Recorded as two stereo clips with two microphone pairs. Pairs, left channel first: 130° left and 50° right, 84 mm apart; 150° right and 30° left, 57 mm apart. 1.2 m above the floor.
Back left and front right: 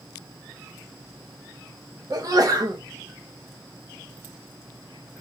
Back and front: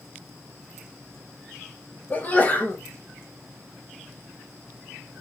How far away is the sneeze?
About 0.9 m.